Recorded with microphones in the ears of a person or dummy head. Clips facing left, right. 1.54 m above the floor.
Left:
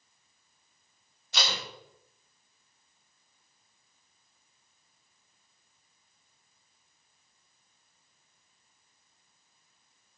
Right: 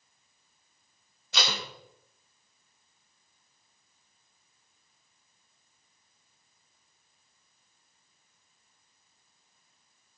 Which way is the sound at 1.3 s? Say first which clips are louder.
Right 1 dB; 55° right (ahead or behind).